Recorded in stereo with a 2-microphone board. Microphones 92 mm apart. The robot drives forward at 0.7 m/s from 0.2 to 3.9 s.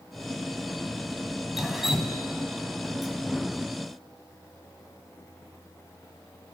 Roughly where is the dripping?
Centre.